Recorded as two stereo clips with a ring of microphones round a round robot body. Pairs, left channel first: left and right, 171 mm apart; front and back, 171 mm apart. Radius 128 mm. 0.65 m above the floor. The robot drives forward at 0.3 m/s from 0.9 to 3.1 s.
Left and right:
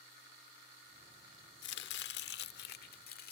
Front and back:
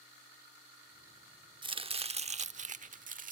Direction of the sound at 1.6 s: 115° left.